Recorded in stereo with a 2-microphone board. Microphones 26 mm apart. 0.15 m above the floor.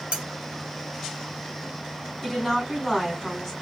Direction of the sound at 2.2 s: 15° left (ahead or behind).